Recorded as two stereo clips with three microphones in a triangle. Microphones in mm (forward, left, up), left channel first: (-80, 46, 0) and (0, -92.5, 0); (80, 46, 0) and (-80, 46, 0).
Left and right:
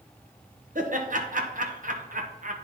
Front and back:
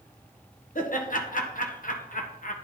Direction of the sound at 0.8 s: 30° right.